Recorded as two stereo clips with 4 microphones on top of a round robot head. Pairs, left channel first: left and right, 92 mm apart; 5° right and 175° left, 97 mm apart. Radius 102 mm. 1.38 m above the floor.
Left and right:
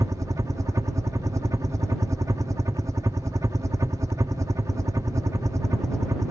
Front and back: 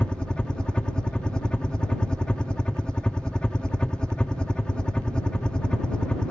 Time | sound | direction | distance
0.0 | a helicopter | 80° right | ?